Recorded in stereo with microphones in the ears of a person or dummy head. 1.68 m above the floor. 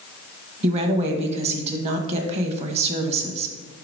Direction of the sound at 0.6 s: 35° right (ahead or behind).